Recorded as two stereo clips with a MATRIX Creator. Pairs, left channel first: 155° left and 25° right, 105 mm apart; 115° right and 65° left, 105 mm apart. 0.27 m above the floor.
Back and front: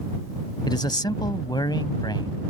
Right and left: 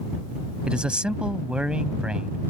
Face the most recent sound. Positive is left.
turn(degrees=145)